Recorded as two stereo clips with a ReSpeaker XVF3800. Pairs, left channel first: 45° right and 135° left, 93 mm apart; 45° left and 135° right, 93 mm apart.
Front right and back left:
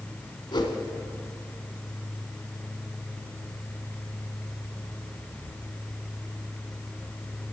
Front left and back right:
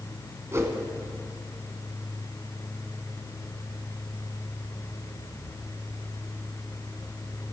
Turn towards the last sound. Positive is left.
turn(degrees=-75)